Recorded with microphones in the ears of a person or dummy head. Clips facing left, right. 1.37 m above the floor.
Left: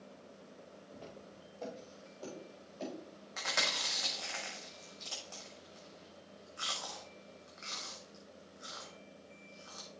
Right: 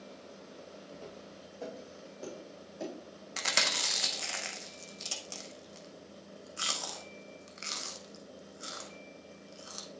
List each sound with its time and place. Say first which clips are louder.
0.9 s footsteps: right 1 dB; 20° right (ahead or behind), 2.5 m; by 2.9 s 30° right (ahead or behind), 4 m
3.4 s chewing: right 3 dB; 45° right (ahead or behind), 0.8 m